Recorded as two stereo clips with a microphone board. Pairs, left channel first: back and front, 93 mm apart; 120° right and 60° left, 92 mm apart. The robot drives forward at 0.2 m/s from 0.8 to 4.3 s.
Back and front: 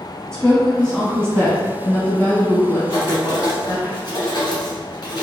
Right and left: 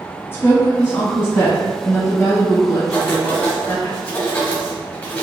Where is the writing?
175° left, 1.5 m.